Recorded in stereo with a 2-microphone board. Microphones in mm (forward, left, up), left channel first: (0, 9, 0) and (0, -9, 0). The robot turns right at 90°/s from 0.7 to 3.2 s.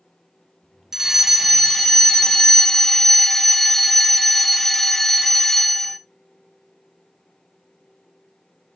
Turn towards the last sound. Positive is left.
turn(degrees=15)  # may be behind; listen again after turning